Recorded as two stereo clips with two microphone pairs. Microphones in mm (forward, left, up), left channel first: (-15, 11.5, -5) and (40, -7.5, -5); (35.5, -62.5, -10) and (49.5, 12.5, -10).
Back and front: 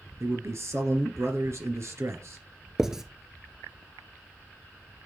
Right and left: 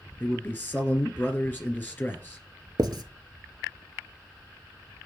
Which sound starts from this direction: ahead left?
Writing, at 2.8 s.